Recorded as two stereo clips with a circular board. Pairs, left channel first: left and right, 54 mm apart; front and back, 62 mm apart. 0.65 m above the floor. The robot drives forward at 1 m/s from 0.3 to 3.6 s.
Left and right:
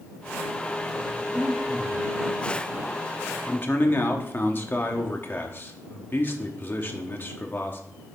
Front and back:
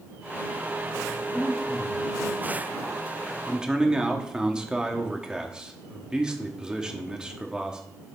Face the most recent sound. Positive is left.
turn(degrees=105)